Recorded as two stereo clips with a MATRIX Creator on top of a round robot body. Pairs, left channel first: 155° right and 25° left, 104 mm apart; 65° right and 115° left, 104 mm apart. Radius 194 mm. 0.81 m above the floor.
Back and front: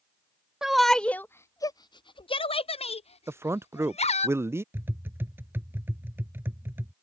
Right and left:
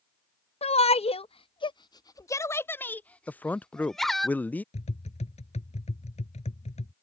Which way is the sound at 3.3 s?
10° right.